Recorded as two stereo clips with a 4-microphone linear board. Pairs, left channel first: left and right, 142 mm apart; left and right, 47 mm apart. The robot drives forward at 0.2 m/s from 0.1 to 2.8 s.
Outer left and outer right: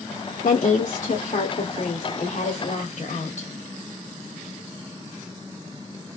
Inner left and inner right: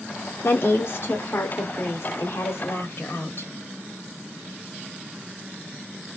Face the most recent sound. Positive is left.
turn(degrees=55)  # may be behind; listen again after turning